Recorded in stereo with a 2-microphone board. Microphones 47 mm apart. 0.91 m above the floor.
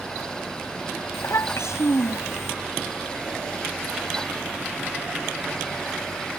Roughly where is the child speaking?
Left.